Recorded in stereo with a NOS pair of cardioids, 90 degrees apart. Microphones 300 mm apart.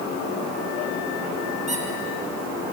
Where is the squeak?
25° right, 5.5 m.